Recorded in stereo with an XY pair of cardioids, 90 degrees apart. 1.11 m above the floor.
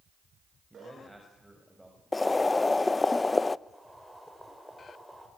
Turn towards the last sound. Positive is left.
turn(degrees=0)